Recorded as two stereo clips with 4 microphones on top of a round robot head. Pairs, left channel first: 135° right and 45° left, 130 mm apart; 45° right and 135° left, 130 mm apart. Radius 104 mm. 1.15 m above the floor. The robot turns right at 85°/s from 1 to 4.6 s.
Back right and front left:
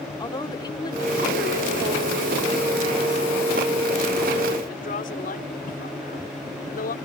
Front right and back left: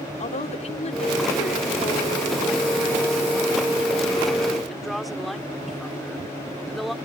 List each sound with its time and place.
0.2 s a woman speaking: 80° right; by 7.0 s 130° right